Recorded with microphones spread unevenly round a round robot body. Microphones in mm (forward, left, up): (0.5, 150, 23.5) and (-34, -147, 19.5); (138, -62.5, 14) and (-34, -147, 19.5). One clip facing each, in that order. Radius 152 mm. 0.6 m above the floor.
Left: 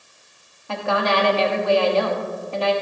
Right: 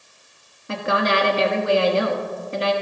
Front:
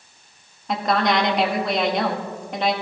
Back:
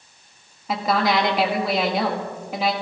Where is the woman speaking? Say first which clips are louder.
Even, even; 70° right, 1.2 m.